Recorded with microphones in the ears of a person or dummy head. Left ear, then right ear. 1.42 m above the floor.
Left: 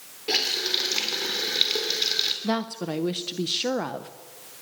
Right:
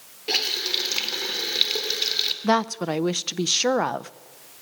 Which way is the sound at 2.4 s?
35° right (ahead or behind).